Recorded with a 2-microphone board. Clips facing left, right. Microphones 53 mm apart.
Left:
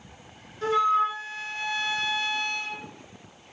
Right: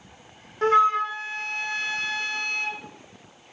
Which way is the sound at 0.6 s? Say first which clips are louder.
Right 3 dB; 55° right (ahead or behind).